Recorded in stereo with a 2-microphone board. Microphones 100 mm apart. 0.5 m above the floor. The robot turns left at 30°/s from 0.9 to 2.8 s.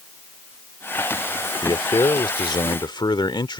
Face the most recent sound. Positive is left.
turn(degrees=75)